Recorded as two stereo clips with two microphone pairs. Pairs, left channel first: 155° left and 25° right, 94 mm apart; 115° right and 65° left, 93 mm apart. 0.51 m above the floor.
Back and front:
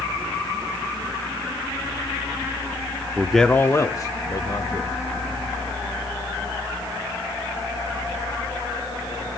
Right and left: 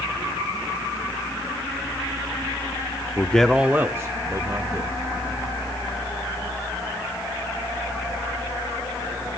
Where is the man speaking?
90° right, 0.7 m; by 4.9 s 115° left, 2.5 m.